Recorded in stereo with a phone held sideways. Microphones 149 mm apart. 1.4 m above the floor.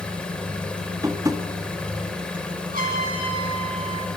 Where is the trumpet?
75° right (ahead or behind), 9 m.